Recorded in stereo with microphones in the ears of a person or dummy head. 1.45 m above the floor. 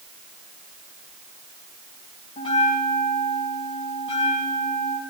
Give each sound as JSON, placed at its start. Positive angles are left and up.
{"t": 2.4, "sound": "a bell", "side_deg": 30, "distance_m": 2.5}